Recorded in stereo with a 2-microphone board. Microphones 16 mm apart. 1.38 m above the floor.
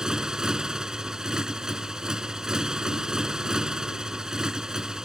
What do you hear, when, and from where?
0.0 s a motorcycle: 55° right (ahead or behind)